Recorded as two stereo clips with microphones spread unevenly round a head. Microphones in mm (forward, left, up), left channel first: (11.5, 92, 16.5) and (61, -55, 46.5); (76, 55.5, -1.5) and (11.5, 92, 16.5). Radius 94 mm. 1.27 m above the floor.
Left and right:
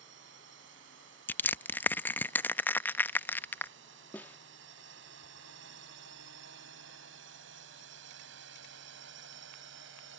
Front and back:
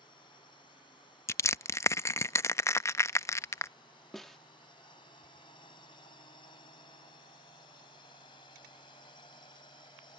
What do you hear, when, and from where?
0.0 s a drone: 80° right; by 10.2 s 85° right
1.3 s crushing: 20° left
4.1 s a snare drum: 155° right